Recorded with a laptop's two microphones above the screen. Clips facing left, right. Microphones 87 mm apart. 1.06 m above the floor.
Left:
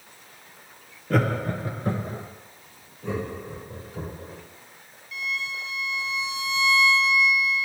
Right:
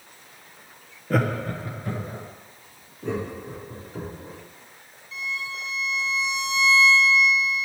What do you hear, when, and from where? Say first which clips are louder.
1.1 s laughter: even; 5° right (ahead or behind), 0.6 m; by 2.2 s 40° left (ahead or behind), 1.1 m
3.0 s laughter: right 1 dB; 55° right (ahead or behind), 3 m
5.1 s a violin: left 1 dB; 30° right (ahead or behind), 0.8 m